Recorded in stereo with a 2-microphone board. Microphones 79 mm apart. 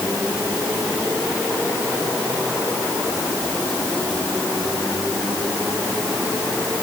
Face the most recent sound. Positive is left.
No sound to turn to.